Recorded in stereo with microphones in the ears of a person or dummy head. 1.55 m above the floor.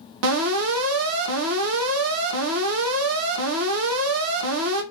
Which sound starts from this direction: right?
An alarm, at 0.2 s.